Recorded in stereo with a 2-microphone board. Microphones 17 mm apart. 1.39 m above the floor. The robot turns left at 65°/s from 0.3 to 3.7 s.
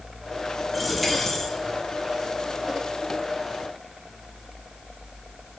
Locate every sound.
0.7 s a dropped coin: 165° right, 3 m; by 1.5 s 145° left, 3 m